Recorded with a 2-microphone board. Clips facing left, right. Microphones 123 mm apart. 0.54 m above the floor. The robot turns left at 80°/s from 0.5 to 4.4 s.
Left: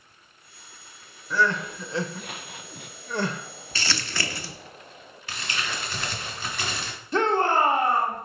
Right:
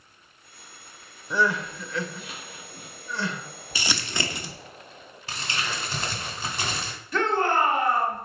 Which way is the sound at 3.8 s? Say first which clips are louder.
Right 1 dB; 15° right (ahead or behind).